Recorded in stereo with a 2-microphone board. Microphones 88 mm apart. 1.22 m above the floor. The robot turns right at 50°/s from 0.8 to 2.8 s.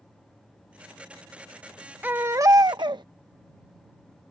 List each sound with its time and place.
2.0 s a baby crying: 160° right; by 3.0 s 125° right